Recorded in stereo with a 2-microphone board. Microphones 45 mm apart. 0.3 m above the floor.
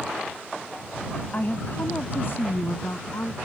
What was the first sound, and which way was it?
A woman speaking, 40° left (ahead or behind).